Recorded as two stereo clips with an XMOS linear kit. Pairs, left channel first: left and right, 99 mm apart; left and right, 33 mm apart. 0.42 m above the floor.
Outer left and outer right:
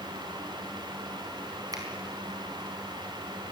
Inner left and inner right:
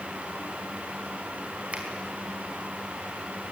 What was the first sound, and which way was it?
A finger snap, 40° right (ahead or behind).